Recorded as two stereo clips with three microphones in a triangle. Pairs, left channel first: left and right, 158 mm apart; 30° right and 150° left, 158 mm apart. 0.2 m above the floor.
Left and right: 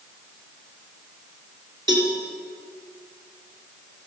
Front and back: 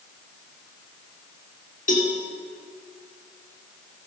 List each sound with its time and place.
1.9 s a cowbell: 35° right, 2 m